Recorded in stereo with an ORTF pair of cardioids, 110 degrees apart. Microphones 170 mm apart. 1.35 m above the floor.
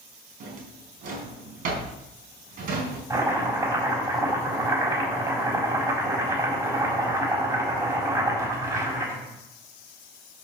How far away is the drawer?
About 4 m.